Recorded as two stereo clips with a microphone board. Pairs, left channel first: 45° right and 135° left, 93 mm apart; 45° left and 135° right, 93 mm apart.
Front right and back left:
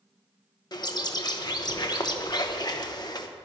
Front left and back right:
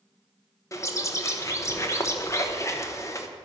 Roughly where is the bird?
Ahead.